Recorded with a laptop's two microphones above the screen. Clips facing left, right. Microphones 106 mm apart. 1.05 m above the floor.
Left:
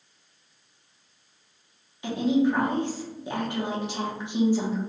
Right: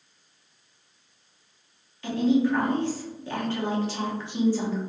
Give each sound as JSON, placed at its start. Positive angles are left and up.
{"t": 2.0, "sound": "a woman speaking", "side_deg": 20, "distance_m": 0.8}